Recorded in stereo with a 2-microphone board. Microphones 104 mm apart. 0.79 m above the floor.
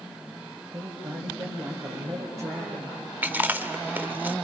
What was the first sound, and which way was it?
A woman speaking, 60° right (ahead or behind).